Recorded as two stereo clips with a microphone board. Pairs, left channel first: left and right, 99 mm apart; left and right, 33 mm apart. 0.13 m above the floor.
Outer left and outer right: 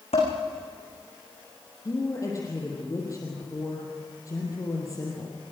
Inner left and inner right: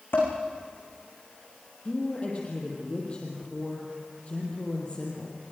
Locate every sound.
0.1 s dishes clattering: 80° left, 7 m
1.9 s a woman speaking: 35° left (ahead or behind), 4.5 m